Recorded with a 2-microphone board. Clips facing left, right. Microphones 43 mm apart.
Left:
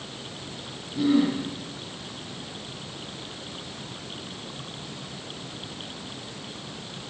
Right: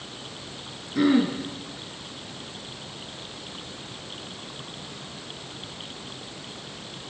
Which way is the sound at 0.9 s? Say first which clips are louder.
Right 1 dB; 80° right.